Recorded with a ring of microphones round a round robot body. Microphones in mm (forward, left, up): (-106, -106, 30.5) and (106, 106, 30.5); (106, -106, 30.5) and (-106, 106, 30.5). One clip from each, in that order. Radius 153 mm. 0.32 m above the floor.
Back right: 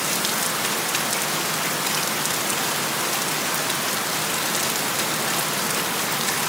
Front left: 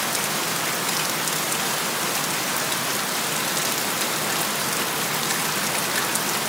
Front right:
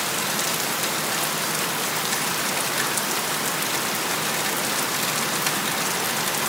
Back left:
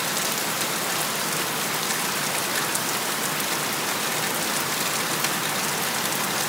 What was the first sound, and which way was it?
Only background noise.